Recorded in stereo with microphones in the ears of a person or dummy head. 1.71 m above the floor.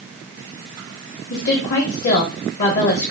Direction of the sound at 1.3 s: 45° left (ahead or behind).